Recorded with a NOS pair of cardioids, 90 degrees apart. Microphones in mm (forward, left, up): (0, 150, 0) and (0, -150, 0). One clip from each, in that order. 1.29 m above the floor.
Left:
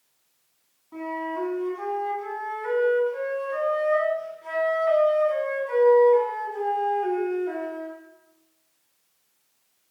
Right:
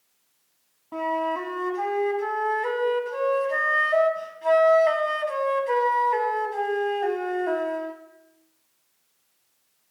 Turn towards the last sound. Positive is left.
turn(degrees=-70)